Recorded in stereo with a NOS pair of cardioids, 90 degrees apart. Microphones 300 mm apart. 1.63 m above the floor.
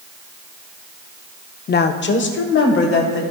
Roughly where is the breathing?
I don't hear breathing.